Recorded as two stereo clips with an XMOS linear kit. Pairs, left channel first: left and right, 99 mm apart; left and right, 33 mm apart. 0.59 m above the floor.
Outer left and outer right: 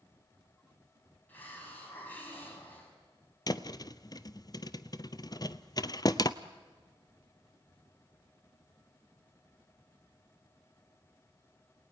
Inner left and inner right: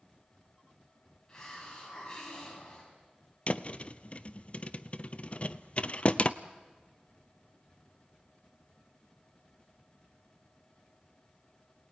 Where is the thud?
40° left (ahead or behind), 0.7 m.